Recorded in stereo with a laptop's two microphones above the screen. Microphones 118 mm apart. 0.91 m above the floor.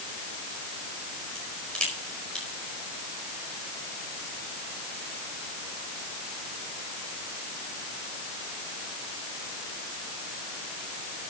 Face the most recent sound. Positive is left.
turn(degrees=10)  # may be behind; listen again after turning